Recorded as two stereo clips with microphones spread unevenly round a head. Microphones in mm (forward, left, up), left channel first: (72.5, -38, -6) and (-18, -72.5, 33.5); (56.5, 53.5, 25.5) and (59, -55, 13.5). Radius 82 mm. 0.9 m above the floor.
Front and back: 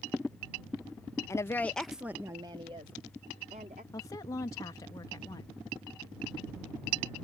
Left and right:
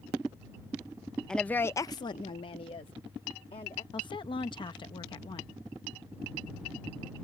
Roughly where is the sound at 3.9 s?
Ahead left.